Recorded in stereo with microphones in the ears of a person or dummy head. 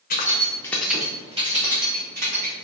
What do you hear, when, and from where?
0.1 s keys jangling: 50° left (ahead or behind), 0.6 m; by 2.6 s 55° right (ahead or behind), 1.1 m